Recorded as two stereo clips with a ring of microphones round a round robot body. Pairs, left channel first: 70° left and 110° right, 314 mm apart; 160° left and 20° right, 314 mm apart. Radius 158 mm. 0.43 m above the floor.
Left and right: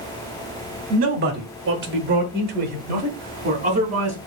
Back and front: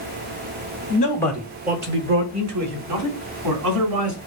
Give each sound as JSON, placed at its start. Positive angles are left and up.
{"t": 0.9, "sound": "a man speaking", "azimuth_deg": -165, "distance_m": 0.9}